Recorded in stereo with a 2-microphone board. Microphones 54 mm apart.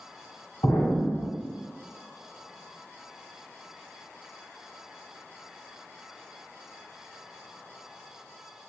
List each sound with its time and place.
0.6 s an explosion: 70° left (ahead or behind), 1.2 m